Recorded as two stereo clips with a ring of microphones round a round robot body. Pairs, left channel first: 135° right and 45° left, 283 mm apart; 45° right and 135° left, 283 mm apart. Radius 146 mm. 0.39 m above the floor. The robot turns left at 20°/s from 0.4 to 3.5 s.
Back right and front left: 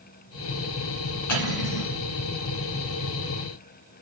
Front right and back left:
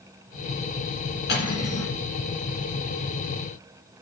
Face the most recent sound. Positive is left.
turn(degrees=-145)